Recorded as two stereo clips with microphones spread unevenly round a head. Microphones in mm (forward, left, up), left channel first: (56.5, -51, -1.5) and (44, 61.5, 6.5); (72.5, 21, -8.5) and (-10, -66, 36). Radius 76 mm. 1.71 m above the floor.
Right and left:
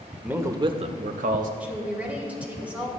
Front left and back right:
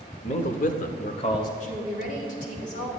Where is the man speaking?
20° left, 0.9 m; by 1.5 s 110° left, 1.0 m.